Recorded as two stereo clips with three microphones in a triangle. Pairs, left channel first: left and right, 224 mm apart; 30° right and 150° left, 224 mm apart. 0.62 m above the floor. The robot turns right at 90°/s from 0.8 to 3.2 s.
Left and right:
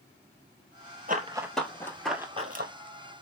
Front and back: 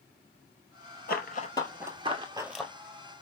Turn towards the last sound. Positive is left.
turn(degrees=-65)